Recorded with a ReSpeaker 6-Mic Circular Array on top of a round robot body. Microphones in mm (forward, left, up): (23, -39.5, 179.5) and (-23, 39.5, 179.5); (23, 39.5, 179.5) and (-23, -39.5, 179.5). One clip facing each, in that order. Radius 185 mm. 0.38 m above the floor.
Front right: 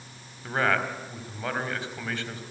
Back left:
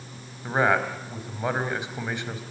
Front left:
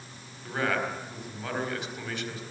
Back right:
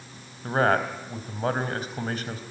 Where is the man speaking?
170° right, 4 m.